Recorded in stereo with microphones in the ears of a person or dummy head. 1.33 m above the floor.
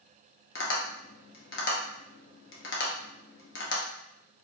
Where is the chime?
No chime in this recording.